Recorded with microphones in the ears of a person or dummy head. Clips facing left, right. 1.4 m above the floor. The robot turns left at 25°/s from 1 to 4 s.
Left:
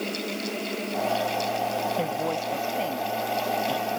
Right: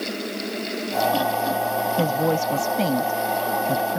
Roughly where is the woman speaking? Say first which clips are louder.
Right 6 dB; ahead right.